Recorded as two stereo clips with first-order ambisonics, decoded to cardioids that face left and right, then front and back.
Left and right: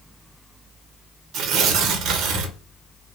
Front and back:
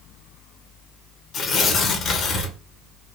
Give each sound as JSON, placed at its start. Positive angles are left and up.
{"t": 1.3, "sound": "tearing paper", "azimuth_deg": -55, "distance_m": 0.6}